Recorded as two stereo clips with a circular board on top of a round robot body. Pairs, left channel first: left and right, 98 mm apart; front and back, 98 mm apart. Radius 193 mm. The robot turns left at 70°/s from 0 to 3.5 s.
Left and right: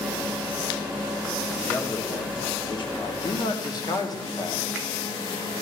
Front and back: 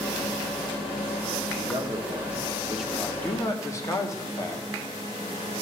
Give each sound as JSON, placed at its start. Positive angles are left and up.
{"t": 1.6, "sound": "a man speaking", "azimuth_deg": 180, "distance_m": 1.8}
{"t": 3.0, "sound": "a man speaking", "azimuth_deg": 90, "distance_m": 1.9}